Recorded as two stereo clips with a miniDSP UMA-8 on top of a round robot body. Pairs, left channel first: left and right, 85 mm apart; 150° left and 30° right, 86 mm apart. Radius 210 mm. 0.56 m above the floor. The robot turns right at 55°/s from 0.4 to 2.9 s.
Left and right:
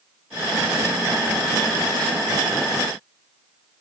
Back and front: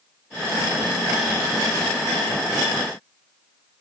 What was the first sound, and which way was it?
Only background noise.